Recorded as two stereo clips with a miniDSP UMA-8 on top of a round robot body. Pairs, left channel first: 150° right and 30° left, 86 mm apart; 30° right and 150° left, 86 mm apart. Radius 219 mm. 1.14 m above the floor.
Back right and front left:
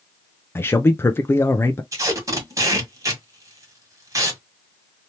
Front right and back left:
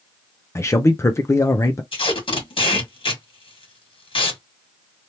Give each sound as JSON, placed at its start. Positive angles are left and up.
{"t": 0.6, "sound": "a man speaking", "azimuth_deg": -85, "distance_m": 0.6}
{"t": 1.9, "sound": "tape being pulled", "azimuth_deg": -25, "distance_m": 1.9}